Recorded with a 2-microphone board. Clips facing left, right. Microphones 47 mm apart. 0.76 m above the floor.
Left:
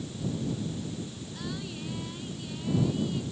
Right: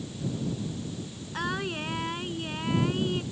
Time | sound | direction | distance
1.3 | singing | 60° right (ahead or behind) | ?